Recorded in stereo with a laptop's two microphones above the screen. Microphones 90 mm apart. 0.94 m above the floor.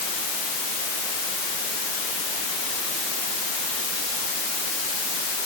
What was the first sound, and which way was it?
Only background noise.